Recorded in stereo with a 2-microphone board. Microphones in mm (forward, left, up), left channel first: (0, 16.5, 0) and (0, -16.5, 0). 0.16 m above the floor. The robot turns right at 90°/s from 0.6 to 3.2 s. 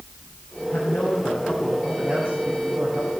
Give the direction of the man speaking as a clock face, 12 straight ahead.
9 o'clock.